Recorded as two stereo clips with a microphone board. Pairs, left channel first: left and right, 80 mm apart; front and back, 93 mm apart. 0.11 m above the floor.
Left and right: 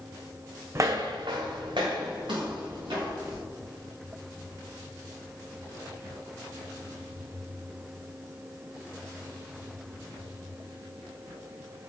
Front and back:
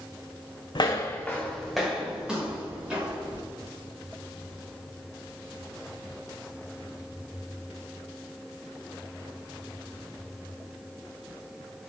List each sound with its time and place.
0.8 s footsteps: 35° right, 0.5 m; by 3.4 s 105° right, 3 m